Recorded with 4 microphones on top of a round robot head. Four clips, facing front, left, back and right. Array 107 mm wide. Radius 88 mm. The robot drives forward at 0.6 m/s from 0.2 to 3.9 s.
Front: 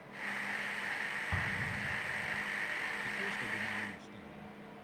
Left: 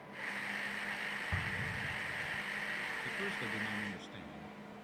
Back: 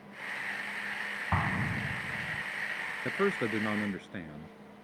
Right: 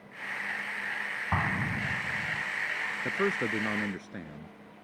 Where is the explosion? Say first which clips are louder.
Right 14 dB, back 10 dB; 125° right; by 2.4 s 130° right.